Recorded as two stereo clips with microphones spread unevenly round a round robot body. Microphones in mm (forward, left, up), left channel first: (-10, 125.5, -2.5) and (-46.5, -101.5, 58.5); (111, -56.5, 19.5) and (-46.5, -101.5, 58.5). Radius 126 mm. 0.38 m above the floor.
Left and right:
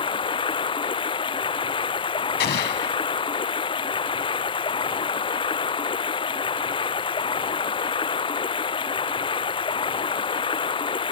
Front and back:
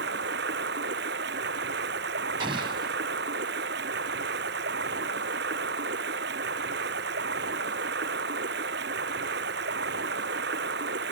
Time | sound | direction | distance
0.0 | running water | 150° left | ?
2.4 | an explosion | 125° left | ?